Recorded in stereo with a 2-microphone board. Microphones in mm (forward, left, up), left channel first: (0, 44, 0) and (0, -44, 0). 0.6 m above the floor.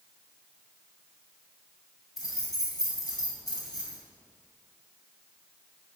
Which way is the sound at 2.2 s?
45° left (ahead or behind).